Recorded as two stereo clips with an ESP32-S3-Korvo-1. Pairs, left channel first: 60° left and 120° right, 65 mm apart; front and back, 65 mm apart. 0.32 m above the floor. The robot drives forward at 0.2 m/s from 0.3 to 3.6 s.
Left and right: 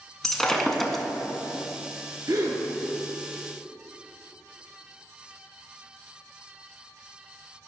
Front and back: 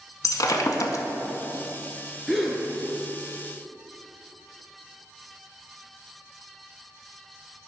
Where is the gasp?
90° right, 1.2 m.